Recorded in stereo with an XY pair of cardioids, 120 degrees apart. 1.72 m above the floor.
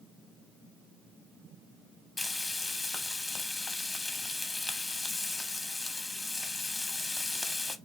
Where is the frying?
15° left, 0.8 m.